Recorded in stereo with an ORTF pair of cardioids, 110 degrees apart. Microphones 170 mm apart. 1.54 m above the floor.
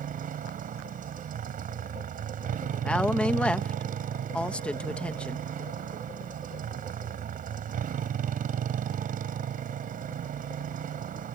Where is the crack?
No crack in this recording.